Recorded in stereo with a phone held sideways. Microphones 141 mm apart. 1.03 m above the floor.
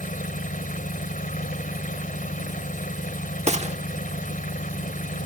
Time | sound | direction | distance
0.0 | an engine running | 75° left (ahead or behind) | ?
3.5 | a gunshot | 50° right (ahead or behind) | ?